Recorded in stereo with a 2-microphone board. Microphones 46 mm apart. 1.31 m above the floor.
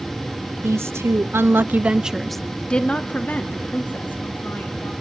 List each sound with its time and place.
0.6 s a woman speaking: 85° right, 1.2 m; by 4.9 s 50° left (ahead or behind), 2.5 m